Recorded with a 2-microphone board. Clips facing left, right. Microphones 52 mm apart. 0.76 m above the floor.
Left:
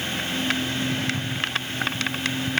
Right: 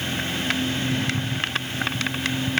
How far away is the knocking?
I don't hear knocking.